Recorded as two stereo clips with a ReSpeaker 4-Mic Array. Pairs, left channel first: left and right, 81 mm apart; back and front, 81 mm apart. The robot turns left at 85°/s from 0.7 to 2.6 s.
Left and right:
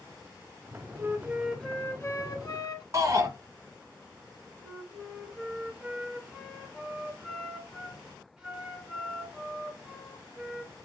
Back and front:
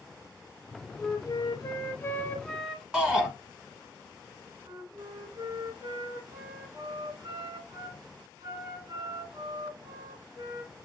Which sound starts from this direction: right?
A shout, at 2.9 s.